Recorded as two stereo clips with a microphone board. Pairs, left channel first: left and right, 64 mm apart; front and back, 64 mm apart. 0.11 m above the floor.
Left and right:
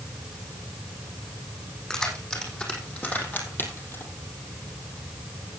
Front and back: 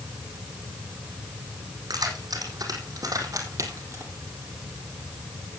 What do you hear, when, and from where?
1.9 s keys jangling: 170° left, 4.5 m; by 4.0 s 135° left, 3 m